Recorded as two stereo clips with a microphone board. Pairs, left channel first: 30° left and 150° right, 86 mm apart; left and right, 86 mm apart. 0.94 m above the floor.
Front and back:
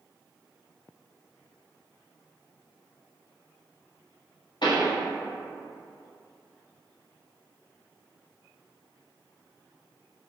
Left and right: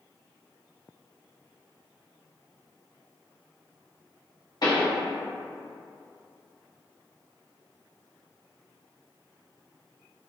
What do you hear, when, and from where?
4.6 s a pop: 55° left, 1.0 m